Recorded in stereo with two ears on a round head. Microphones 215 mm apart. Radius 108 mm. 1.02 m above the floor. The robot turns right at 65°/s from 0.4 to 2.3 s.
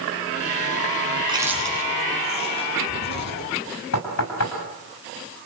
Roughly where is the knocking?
Left.